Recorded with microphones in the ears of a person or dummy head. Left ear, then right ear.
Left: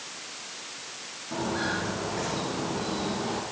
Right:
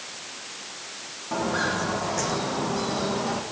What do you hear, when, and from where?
1.3 s footsteps: 40° right (ahead or behind), 3 m; by 3.4 s 55° right (ahead or behind), 2.5 m